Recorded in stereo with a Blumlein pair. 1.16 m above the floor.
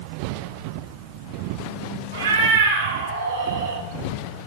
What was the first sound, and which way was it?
A cat meowing, 60° right.